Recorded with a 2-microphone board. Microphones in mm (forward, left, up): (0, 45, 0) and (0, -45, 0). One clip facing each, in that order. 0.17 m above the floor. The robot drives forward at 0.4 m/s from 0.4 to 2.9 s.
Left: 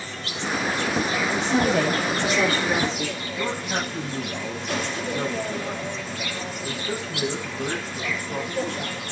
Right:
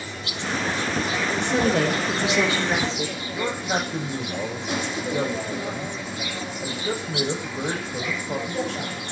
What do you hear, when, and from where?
0.0 s an insect: 20° right (ahead or behind), 5 m
1.3 s a woman speaking: 20° right (ahead or behind), 7.5 m; by 3.2 s 25° right (ahead or behind), 7 m
3.3 s a man speaking: 80° right, 10 m